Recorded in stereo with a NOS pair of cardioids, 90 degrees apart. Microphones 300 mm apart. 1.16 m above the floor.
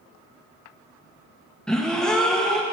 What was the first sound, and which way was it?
A gasp, straight ahead.